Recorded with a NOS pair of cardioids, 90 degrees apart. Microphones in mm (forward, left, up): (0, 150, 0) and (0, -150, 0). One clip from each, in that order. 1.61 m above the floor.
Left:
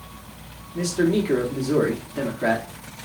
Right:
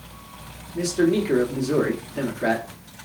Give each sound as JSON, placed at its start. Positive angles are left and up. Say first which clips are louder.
{"t": 0.8, "sound": "a man speaking", "louder": "right 1 dB", "azimuth_deg": 0, "distance_m": 1.0}